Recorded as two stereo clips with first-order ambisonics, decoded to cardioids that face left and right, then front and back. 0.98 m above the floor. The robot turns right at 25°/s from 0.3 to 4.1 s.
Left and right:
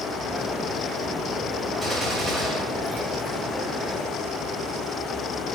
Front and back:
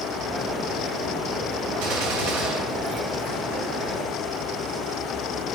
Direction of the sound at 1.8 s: 170° left.